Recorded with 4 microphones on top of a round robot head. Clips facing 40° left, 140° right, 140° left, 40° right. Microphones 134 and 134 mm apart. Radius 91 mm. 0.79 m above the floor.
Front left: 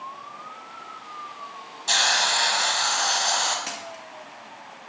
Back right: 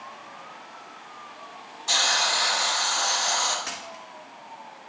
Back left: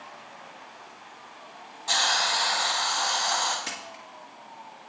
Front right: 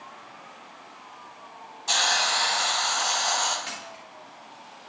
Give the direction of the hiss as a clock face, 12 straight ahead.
11 o'clock.